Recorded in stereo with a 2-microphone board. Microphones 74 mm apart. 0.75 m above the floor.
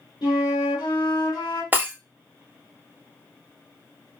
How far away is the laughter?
No laughter in this recording.